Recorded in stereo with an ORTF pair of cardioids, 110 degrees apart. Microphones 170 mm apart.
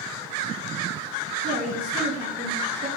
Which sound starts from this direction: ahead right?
A woman speaking, at 1.4 s.